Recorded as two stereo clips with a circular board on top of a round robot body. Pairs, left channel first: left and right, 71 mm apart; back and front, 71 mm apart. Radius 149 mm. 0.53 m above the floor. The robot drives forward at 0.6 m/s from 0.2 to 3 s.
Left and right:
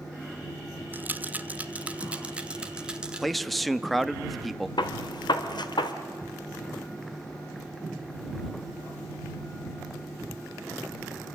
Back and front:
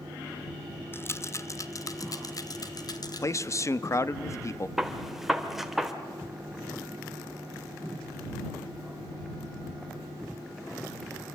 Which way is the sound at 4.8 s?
85° left.